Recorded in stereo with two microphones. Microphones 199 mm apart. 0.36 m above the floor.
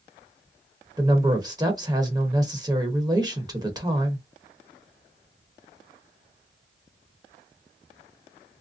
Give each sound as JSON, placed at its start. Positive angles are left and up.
{"t": 1.0, "sound": "a woman speaking", "side_deg": -20, "distance_m": 0.9}